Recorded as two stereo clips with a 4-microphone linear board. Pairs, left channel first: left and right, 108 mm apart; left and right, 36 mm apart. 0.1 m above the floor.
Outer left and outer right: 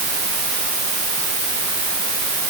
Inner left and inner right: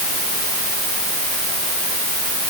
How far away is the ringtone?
No ringtone in this recording.